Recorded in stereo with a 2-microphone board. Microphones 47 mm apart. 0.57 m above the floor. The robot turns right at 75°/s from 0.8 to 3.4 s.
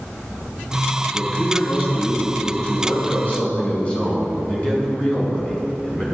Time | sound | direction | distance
1.1 | a man speaking | 15° right | 4.5 m